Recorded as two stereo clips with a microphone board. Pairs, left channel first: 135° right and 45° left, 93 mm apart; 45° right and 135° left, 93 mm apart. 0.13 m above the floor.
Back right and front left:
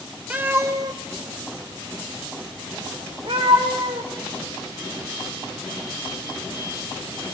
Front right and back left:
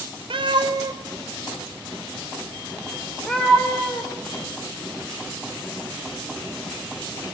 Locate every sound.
0.3 s a cat meowing: 120° left, 1.4 m; by 4.1 s 30° left, 4.5 m